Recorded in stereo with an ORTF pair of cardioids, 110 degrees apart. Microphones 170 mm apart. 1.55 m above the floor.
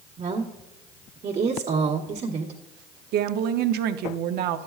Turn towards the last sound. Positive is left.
turn(degrees=-70)